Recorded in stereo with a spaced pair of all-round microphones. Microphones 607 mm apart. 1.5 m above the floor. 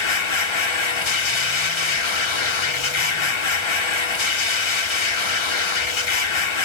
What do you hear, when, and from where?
0.0 s a machine running: 50° left (ahead or behind), 0.7 m